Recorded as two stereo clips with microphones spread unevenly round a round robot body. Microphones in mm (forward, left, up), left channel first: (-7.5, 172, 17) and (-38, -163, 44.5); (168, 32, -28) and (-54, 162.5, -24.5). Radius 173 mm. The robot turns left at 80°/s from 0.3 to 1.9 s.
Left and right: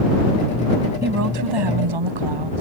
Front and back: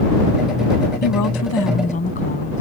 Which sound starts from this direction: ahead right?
A woman speaking, at 1.0 s.